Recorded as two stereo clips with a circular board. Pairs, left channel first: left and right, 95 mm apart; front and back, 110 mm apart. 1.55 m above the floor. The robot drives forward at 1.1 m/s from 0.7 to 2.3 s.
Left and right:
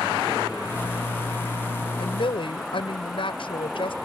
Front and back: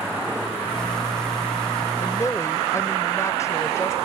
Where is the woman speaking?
60° left; by 3.9 s 65° left.